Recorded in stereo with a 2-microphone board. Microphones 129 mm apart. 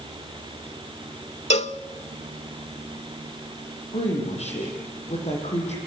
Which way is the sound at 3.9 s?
60° left (ahead or behind).